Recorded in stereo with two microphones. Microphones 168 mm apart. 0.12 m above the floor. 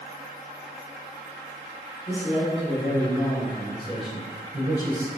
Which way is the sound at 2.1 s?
40° left (ahead or behind).